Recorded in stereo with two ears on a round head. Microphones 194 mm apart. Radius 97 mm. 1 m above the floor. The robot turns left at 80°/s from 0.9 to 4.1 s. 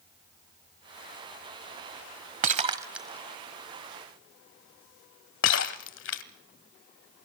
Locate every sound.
2.4 s breaking glass: 40° right (ahead or behind), 1.3 m; by 6.2 s 55° left (ahead or behind), 1.3 m